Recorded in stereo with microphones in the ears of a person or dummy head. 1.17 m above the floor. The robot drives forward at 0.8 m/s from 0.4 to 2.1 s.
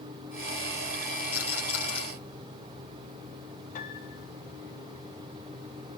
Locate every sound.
1.3 s a rattle: 20° right (ahead or behind), 5 m
3.8 s a piano: 50° left (ahead or behind), 3.5 m